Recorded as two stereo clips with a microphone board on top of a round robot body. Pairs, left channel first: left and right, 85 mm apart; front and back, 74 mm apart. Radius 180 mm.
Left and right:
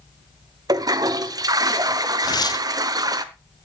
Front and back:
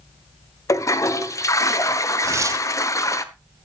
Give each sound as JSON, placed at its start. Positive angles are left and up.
{"t": 0.7, "sound": "a toilet flushing", "azimuth_deg": -45, "distance_m": 1.1}
{"t": 2.2, "sound": "tearing paper", "azimuth_deg": 130, "distance_m": 0.9}